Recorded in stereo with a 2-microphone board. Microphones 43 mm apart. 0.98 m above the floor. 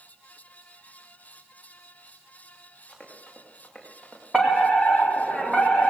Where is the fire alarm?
5° right (ahead or behind), 4 m.